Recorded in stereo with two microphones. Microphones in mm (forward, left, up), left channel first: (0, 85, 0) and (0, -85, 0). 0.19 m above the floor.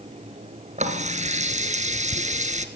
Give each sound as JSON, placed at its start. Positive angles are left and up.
{"t": 0.8, "sound": "a running tap", "side_deg": -45, "distance_m": 2.0}